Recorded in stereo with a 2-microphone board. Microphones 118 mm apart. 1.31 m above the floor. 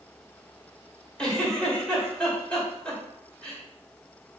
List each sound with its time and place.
1.2 s a giggle: 5° left (ahead or behind), 2 m